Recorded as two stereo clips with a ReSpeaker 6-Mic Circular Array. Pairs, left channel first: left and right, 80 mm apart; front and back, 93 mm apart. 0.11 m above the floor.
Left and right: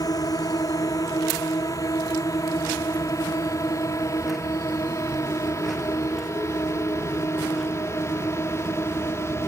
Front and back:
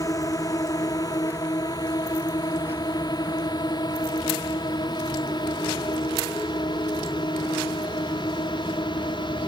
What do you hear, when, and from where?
0.0 s a drone: 50° left; by 9.5 s 35° left